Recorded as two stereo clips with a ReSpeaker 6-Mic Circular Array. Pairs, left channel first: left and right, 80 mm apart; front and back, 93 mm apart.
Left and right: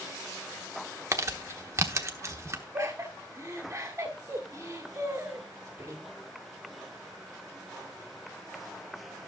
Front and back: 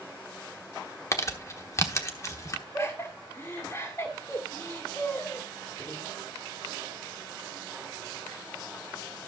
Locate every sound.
1.1 s crumpling: 45° right, 1.0 m
2.7 s laughter: 40° right, 2.0 m